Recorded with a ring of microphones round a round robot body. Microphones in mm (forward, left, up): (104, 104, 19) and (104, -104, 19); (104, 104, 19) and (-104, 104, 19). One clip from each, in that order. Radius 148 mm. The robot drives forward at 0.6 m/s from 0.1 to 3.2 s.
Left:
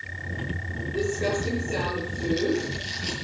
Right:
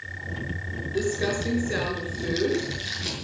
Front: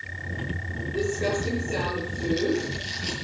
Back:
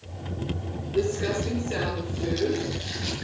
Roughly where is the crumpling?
Right.